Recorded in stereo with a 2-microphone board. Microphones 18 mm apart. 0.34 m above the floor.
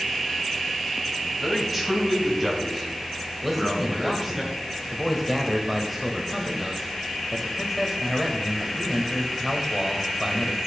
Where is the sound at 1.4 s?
10° right (ahead or behind), 2.5 m; by 4.4 s 25° right (ahead or behind), 5.5 m.